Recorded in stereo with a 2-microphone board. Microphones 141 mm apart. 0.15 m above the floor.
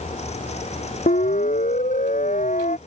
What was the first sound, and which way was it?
A siren, 60° left (ahead or behind).